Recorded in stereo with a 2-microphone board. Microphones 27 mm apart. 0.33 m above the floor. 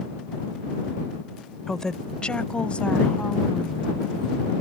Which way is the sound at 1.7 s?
15° left (ahead or behind).